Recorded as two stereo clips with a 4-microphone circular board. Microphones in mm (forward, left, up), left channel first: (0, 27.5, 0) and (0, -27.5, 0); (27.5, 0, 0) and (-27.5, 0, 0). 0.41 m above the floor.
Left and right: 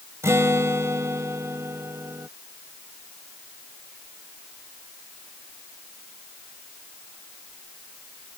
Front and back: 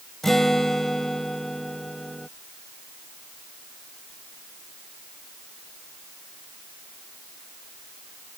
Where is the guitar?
85° right.